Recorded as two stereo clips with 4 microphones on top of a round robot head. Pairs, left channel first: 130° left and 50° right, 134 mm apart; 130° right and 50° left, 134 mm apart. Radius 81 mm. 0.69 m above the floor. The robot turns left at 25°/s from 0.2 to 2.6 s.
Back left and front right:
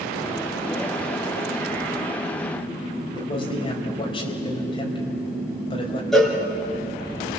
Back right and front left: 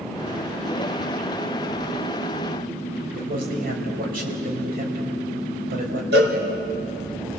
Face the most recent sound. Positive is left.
turn(degrees=45)